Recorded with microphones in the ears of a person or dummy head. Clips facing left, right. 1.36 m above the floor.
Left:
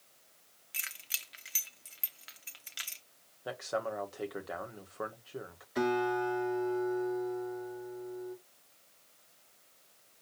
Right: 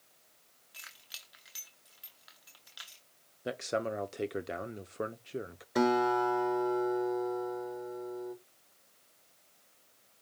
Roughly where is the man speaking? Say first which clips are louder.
Right 2 dB; right.